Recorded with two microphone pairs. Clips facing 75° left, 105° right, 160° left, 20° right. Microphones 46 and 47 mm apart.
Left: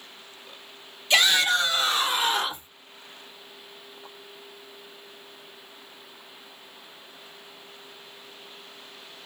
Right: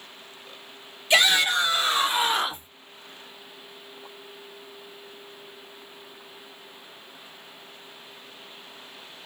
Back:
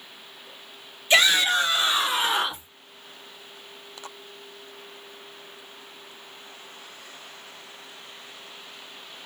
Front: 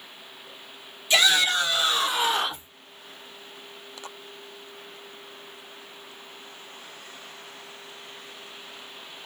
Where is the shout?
170° right, 2 m; by 2.7 s 145° right, 1.7 m.